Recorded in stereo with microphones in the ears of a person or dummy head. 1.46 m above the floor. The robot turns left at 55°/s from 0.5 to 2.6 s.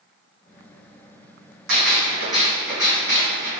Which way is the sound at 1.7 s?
110° right.